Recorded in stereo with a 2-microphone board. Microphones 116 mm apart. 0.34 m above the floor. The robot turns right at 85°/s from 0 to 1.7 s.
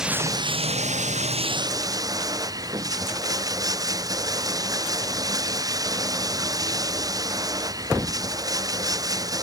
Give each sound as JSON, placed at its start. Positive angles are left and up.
{"t": 0.0, "sound": "running water", "azimuth_deg": -175}